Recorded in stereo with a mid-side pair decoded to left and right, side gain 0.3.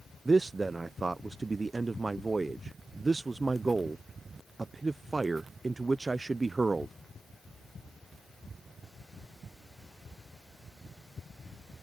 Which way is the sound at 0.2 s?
35° right.